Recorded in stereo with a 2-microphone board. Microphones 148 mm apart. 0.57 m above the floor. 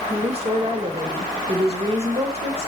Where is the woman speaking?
40° right (ahead or behind), 1.6 m.